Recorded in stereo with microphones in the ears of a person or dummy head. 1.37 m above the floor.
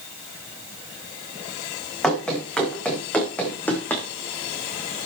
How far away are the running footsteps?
About 5 m.